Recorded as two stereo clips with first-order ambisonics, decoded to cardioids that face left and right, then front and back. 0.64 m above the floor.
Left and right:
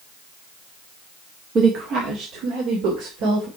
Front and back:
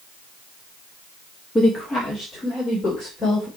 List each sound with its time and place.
1.6 s a woman speaking: 65° right, 1.2 m; by 3.5 s 75° right, 3.5 m